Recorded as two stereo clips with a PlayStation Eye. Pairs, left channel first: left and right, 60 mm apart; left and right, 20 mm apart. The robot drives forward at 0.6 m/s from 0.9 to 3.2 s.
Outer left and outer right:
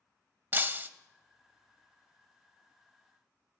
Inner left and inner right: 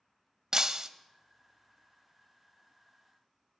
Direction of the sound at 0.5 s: 35° right (ahead or behind).